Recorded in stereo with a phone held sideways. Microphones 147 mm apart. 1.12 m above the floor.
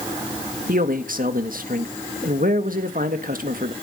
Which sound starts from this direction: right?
A man speaking, at 0.7 s.